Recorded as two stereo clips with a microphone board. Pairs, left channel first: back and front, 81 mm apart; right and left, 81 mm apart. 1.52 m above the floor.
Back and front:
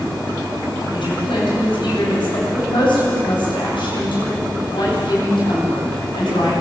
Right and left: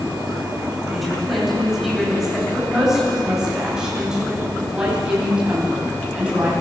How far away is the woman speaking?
About 10 m.